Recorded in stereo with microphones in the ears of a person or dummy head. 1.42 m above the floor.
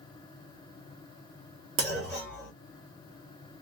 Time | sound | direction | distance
1.8 | a clunk | 50° right (ahead or behind) | 1.7 m